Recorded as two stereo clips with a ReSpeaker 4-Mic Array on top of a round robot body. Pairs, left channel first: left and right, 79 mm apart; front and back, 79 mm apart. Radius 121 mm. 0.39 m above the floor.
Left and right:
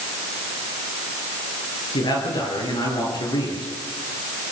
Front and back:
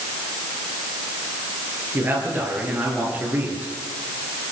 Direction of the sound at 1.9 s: 115° left.